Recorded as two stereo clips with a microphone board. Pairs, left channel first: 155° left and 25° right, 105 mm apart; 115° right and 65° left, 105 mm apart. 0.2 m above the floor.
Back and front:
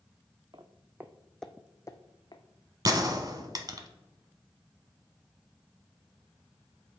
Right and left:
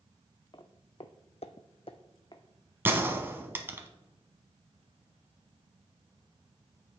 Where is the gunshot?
5° left, 0.9 m.